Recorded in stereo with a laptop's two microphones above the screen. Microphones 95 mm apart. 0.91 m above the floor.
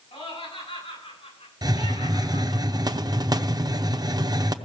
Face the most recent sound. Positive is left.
turn(degrees=-45)  # may be behind; listen again after turning